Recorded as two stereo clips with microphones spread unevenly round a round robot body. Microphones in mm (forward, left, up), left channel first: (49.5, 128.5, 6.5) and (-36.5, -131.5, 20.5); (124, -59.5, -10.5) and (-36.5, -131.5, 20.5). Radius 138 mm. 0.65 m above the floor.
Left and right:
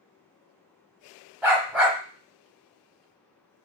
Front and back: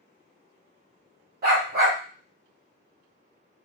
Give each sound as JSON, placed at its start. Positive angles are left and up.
{"t": 1.4, "sound": "a dog barking", "azimuth_deg": 170, "distance_m": 0.7}